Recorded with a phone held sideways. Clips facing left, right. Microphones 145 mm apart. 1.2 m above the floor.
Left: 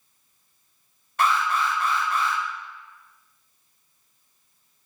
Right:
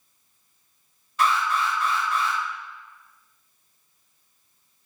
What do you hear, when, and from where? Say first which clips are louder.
1.2 s an alarm: even; 60° left (ahead or behind), 1.5 m